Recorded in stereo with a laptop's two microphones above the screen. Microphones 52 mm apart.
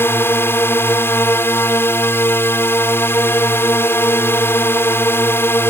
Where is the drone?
50° left (ahead or behind).